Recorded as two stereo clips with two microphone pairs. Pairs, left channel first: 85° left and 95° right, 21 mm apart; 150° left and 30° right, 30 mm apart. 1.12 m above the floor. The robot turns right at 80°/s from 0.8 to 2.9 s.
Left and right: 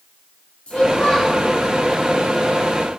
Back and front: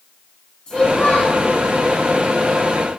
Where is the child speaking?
100° left, 1.3 m; by 1.4 s 150° left, 1.3 m.